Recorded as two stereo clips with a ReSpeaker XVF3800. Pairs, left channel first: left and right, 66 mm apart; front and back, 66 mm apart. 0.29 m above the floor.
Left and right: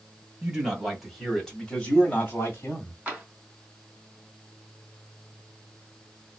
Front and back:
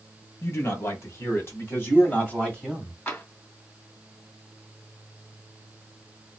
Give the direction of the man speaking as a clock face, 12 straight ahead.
1 o'clock.